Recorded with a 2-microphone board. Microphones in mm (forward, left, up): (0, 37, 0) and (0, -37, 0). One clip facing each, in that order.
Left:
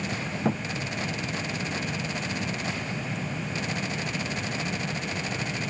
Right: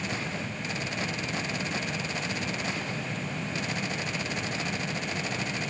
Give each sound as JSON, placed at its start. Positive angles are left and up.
{"t": 0.5, "sound": "a thud", "side_deg": 80}